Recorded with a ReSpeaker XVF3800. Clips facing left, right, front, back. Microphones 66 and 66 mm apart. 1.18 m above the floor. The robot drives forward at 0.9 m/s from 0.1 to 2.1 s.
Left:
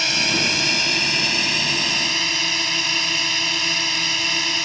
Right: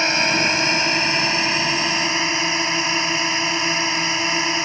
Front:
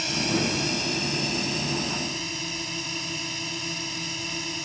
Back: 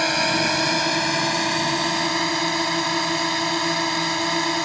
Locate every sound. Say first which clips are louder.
0.0 s a drone: right 4 dB, back 6 dB; 150° right; by 4.7 s 155° right